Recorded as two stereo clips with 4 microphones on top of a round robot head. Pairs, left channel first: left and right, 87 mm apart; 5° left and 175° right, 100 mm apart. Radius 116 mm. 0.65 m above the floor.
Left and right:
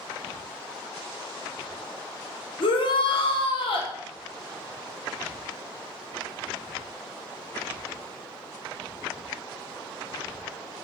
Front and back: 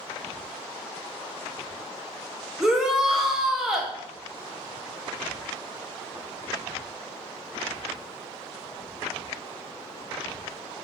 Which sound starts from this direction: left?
A shout, at 2.6 s.